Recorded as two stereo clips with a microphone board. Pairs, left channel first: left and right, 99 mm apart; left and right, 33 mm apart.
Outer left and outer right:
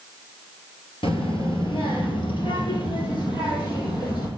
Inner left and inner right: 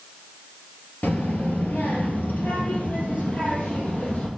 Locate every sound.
1.0 s a child speaking: 65° left (ahead or behind), 2 m; by 4.3 s 50° left (ahead or behind), 3.5 m